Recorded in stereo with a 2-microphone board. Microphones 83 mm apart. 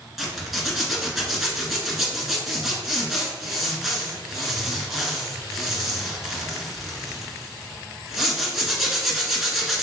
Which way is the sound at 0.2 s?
5° right (ahead or behind).